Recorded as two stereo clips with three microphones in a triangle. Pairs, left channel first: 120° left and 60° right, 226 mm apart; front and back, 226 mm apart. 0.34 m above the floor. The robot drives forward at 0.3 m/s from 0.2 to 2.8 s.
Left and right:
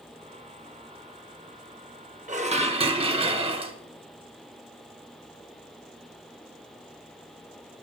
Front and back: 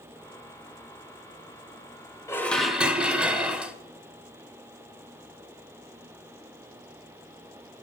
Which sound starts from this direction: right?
Dishes clattering, at 2.3 s.